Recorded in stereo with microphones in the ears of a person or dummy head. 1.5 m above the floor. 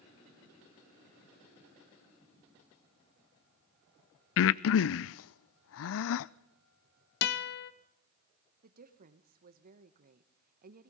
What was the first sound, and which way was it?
Breathing, 75° left (ahead or behind).